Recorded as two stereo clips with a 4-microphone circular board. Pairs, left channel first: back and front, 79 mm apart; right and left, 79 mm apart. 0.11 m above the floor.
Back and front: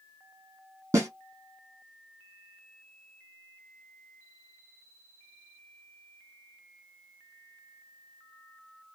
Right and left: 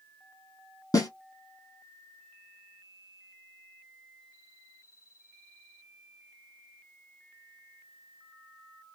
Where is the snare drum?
55° right, 1.5 m.